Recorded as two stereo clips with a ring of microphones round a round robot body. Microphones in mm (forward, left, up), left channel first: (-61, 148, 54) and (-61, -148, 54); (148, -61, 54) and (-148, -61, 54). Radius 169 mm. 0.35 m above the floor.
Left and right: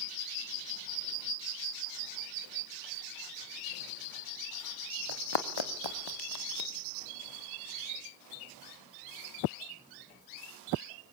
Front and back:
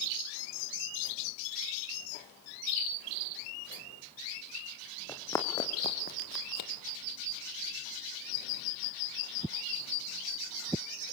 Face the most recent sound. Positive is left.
turn(degrees=40)